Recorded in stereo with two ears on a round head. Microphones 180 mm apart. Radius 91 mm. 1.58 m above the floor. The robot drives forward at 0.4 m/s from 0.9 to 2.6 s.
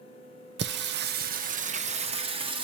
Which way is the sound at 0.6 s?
55° right (ahead or behind).